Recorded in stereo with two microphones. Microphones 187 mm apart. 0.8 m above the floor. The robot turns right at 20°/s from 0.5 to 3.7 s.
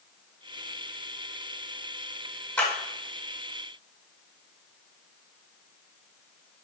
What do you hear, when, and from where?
2.6 s a clap: 5° left (ahead or behind), 2.5 m